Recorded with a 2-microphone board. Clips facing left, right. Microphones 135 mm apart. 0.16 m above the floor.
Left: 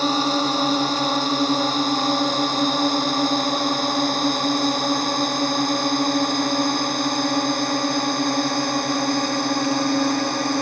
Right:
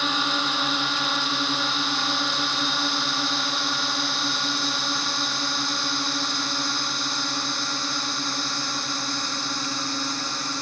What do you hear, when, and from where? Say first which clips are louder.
0.0 s a drone: left 7 dB; 40° left (ahead or behind); by 10.6 s 60° left (ahead or behind)